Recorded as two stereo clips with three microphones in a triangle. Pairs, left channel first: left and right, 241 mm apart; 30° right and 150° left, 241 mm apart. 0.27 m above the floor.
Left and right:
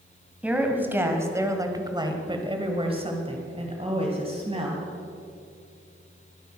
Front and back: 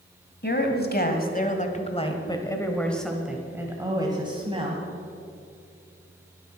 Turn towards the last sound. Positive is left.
turn(degrees=-150)